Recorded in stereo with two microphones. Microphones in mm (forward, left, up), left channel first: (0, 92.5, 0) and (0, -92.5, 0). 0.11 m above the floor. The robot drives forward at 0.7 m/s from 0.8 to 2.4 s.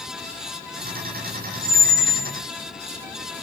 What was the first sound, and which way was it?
A squeak, 20° left (ahead or behind).